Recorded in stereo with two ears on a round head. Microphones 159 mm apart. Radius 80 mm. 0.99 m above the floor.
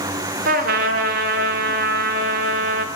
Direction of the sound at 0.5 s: 50° right (ahead or behind).